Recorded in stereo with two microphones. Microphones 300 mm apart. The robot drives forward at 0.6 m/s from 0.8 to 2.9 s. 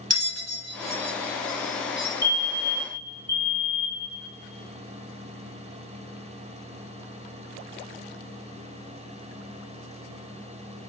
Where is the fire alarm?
10° left (ahead or behind), 3 m.